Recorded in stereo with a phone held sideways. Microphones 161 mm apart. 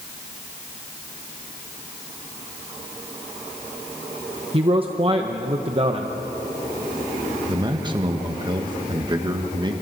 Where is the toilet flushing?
No toilet flushing in this recording.